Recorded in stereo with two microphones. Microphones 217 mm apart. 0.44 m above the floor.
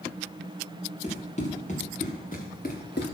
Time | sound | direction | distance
1.0 | running footsteps | 30° left (ahead or behind) | 4 m